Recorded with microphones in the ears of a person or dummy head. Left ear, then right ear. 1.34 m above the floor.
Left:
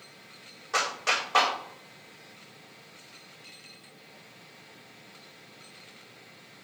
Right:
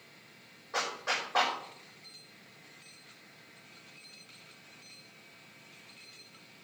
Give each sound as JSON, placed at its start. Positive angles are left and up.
{"t": 0.7, "sound": "a clap", "side_deg": 75, "distance_m": 4.0}